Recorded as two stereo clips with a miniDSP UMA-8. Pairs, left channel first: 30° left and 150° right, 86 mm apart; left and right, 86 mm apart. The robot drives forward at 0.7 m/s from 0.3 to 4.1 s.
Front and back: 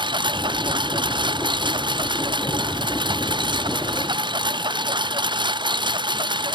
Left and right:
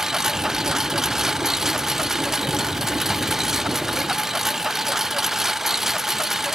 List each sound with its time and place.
0.0 s a lawn mower: 175° right